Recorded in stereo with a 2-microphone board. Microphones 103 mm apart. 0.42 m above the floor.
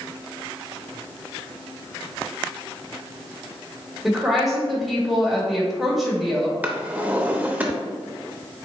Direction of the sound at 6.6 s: 15° right (ahead or behind).